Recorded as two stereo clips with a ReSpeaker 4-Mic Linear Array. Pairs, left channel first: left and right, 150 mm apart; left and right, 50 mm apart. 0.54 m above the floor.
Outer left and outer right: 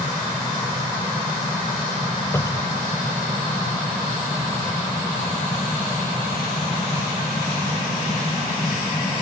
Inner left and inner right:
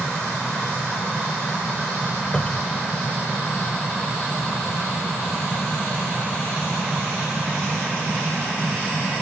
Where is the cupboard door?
20° left (ahead or behind).